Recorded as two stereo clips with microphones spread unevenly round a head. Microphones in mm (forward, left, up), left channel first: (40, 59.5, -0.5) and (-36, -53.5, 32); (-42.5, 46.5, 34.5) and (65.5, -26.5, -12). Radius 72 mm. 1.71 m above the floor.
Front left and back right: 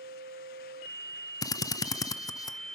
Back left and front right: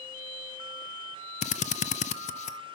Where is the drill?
125° left, 0.6 m.